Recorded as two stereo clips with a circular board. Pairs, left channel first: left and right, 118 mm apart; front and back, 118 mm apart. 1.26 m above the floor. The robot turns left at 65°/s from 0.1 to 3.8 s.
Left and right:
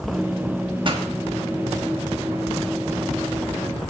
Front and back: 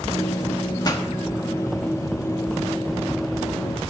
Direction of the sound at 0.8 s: 50° right.